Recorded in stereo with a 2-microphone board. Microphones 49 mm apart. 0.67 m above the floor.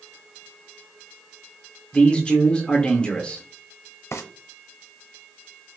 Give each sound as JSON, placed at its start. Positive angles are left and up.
{"t": 1.9, "sound": "a man speaking", "side_deg": 20, "distance_m": 1.0}
{"t": 4.1, "sound": "frying", "side_deg": 70, "distance_m": 0.8}